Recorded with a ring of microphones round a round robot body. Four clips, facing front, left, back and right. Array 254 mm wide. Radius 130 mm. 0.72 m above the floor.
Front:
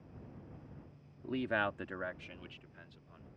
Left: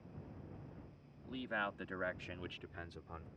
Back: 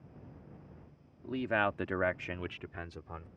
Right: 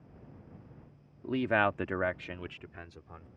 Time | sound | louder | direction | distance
1.2 | a man speaking | right 13 dB, back 3 dB | 85° right | ?